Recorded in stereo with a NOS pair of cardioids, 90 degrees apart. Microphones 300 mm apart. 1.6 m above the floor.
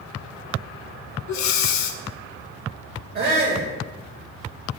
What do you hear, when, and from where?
1.3 s breathing: 65° left, 0.7 m
3.1 s a shout: 35° right, 1.6 m